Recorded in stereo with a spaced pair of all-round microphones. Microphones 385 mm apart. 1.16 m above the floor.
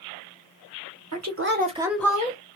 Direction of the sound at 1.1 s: 50° right (ahead or behind).